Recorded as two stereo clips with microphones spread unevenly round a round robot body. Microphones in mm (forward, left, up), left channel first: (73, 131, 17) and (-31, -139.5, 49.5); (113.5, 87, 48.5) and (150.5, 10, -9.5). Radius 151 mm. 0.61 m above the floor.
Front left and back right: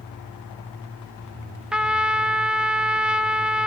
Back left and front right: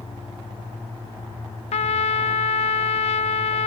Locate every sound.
1.7 s a trumpet: 155° left, 1.0 m